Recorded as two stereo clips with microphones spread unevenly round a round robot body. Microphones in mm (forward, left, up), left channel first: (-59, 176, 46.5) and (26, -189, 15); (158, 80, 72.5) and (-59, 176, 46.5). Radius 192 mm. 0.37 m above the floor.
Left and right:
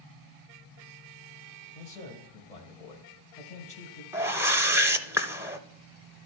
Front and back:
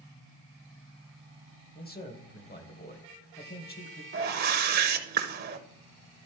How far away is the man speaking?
About 1.9 m.